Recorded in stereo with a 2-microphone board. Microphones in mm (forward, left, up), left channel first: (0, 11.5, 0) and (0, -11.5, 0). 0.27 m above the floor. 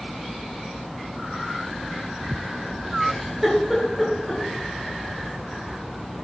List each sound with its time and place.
3.0 s a giggle: 10° right (ahead or behind), 5 m